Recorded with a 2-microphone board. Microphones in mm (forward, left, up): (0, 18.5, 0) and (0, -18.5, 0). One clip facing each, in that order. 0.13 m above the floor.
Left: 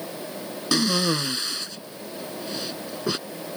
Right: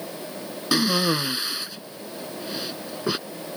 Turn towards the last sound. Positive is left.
turn(degrees=-10)  # may be behind; listen again after turning